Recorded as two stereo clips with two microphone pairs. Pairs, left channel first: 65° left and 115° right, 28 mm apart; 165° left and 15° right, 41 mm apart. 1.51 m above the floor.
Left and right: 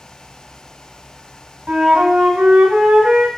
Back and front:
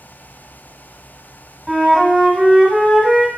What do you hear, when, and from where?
1.7 s a flute: 105° right, 0.9 m